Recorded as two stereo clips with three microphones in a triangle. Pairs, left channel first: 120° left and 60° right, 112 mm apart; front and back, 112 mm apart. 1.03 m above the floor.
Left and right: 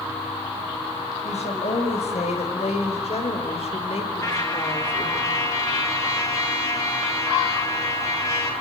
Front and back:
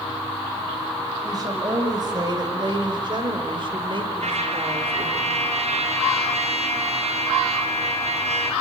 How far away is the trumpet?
About 7 m.